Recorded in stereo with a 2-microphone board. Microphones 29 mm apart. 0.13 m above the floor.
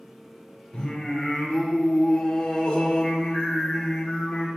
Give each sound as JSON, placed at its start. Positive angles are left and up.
{"t": 0.7, "sound": "singing", "side_deg": 25, "distance_m": 1.8}